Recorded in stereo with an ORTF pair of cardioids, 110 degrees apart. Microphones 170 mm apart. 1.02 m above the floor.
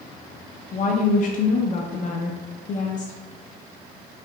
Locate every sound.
0.7 s a woman speaking: 50° left, 0.5 m